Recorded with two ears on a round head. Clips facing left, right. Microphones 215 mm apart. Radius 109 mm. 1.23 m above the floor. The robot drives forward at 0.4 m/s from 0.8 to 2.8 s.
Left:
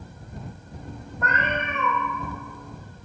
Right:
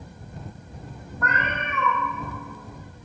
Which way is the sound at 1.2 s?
20° left (ahead or behind).